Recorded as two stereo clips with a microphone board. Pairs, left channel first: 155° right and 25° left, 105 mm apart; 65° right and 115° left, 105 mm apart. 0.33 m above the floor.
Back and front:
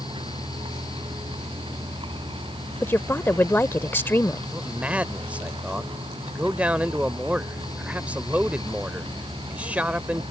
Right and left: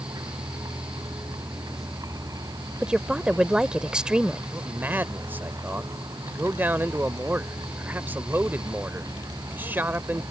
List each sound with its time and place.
0.0 s a vehicle: 60° left
2.8 s a woman speaking: straight behind
4.5 s a man speaking: 75° left